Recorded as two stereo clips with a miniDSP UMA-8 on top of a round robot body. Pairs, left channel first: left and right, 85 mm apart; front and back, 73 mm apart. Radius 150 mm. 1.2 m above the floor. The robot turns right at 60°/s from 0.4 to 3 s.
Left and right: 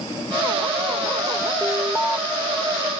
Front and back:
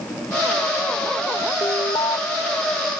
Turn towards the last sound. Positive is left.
turn(degrees=55)